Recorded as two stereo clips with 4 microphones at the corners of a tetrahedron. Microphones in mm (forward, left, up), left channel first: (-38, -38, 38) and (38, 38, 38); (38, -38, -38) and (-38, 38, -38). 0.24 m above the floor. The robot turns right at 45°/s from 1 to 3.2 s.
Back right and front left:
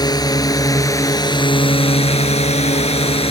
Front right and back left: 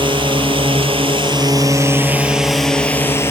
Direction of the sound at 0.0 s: 175° left.